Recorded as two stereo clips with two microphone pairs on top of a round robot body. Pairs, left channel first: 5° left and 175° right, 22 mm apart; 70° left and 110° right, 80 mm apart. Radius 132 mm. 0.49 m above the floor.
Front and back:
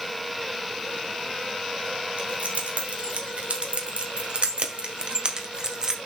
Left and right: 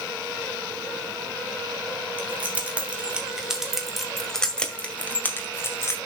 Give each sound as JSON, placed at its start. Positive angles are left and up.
{"t": 2.2, "sound": "keys jangling", "azimuth_deg": -175, "distance_m": 2.5}